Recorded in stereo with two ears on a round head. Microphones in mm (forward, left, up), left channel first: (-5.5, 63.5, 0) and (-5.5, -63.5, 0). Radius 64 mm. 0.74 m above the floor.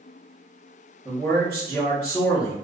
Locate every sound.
1.1 s a man speaking: 15° left (ahead or behind), 1.0 m